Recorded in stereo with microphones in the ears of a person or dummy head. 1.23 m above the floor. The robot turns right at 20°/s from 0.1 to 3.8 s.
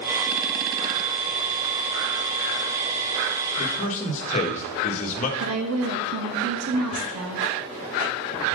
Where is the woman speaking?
80° right, 1.6 m.